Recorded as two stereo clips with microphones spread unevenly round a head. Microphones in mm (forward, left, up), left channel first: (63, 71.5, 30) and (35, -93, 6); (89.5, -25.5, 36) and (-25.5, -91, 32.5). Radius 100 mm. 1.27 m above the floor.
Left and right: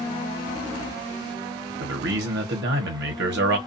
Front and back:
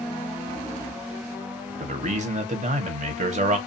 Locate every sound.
1.8 s a man speaking: 120° right, 1.0 m